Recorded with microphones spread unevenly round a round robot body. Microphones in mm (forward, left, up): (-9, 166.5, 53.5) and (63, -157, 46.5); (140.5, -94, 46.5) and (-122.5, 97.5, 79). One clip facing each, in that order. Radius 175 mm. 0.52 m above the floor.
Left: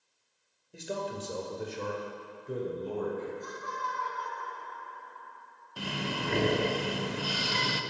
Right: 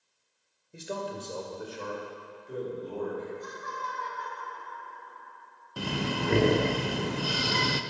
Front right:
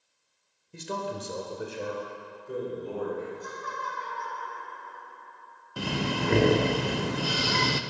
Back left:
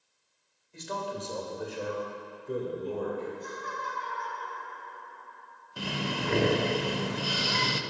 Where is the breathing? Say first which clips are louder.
Right 4 dB, front right 4 dB; 50° right, 0.6 m.